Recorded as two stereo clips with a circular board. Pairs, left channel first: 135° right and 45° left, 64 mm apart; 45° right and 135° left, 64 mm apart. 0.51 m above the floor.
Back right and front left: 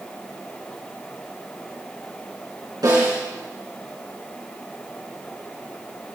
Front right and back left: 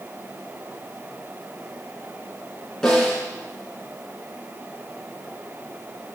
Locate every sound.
2.8 s a snare drum: 35° left, 5 m